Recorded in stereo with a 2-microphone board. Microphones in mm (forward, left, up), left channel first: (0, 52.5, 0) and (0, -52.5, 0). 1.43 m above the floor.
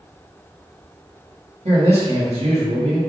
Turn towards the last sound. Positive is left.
turn(degrees=-80)